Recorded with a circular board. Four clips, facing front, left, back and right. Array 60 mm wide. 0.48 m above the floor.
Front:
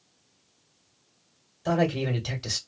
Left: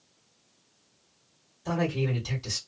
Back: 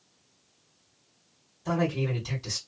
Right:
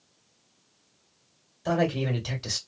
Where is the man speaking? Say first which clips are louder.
Right 3 dB, front 3 dB; 35° right, 1.5 m.